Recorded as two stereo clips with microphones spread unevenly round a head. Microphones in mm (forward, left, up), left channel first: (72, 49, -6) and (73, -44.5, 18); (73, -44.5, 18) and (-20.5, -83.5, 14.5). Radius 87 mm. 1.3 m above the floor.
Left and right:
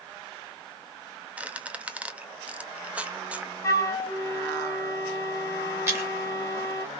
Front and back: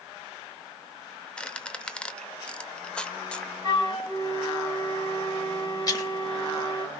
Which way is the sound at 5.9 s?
30° right.